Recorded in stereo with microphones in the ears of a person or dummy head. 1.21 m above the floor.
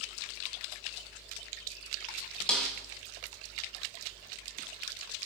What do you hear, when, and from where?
2.5 s a snare drum: 5° left (ahead or behind), 0.8 m